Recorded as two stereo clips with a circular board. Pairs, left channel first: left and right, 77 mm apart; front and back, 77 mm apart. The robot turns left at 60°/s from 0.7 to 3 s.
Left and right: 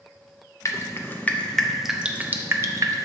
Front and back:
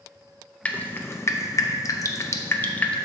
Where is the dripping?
65° left, 0.6 m; by 3.1 s 75° right, 0.6 m.